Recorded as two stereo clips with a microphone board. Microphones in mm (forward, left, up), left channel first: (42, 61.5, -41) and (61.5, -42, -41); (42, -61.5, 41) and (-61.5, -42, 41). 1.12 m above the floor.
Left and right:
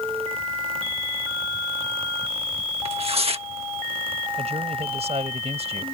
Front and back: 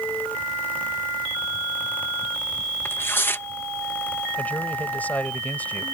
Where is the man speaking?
85° right.